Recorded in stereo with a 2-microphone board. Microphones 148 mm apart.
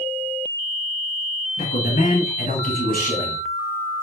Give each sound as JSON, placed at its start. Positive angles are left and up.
{"t": 1.6, "sound": "a man speaking", "side_deg": 60, "distance_m": 3.0}